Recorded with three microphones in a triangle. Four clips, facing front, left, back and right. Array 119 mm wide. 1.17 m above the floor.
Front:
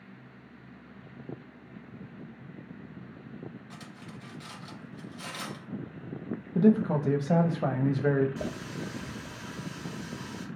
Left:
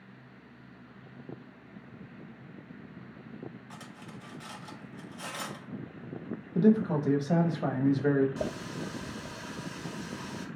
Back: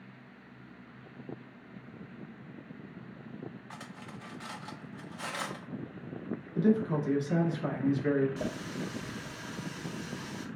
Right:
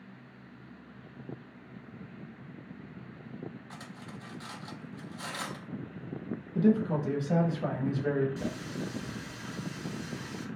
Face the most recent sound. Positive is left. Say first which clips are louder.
# left 1 dB, even
turn(degrees=80)